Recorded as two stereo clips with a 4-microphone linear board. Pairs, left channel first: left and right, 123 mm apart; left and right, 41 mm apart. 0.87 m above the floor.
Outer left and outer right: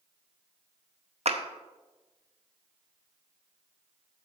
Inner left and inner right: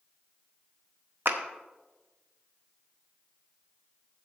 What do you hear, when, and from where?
1.2 s a clap: 65° right (ahead or behind), 0.8 m